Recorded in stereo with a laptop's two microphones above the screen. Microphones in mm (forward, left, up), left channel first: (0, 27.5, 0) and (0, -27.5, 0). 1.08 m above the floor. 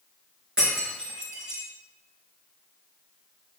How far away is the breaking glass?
About 4 m.